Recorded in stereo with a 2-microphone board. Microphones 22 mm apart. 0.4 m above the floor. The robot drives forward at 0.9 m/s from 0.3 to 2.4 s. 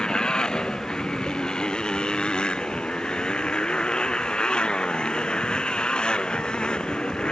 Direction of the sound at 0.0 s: 50° left (ahead or behind).